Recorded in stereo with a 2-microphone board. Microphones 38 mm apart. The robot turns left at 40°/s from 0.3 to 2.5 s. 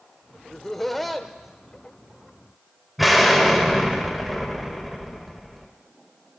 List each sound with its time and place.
0.5 s laughter: 15° left (ahead or behind), 0.9 m; by 4.0 s 25° right (ahead or behind), 0.9 m
3.0 s an explosion: centre (ahead or behind), 1.4 m